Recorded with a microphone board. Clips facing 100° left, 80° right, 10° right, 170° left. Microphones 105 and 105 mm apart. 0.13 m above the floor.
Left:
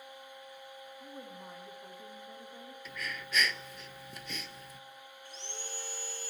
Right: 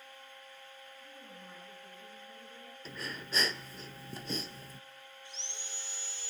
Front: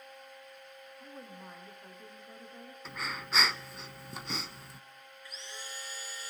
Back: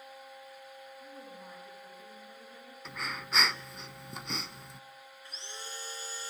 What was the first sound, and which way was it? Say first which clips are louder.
A woman speaking: left 6 dB, front 3 dB; 60° left.